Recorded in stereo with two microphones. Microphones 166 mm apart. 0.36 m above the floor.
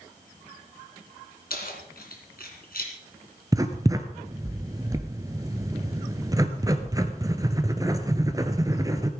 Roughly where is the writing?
Right.